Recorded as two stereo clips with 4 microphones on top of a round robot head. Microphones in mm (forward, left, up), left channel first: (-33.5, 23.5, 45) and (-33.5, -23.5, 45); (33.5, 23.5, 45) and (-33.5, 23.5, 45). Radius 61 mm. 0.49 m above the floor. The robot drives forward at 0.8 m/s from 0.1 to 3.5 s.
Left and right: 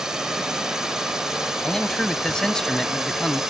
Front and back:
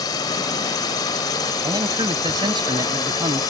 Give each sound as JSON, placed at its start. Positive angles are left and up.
{"t": 0.0, "sound": "a drone", "azimuth_deg": -10}
{"t": 1.6, "sound": "a man speaking", "azimuth_deg": 165}